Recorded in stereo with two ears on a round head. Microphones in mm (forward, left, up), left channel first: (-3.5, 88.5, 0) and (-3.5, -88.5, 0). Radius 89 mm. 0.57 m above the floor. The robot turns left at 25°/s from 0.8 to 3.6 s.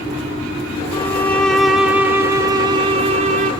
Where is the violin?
20° left, 1.9 m; by 3.5 s 45° right, 1.9 m.